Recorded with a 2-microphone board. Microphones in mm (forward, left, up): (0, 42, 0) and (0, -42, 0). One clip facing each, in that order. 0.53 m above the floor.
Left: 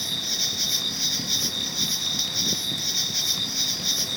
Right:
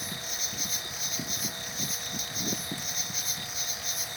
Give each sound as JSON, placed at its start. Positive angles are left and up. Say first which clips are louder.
{"t": 0.0, "sound": "an insect", "louder": "left 4 dB", "side_deg": 70}